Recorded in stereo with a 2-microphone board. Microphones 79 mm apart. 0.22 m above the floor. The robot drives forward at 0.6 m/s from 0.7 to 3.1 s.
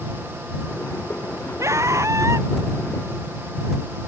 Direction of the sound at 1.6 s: 40° right (ahead or behind).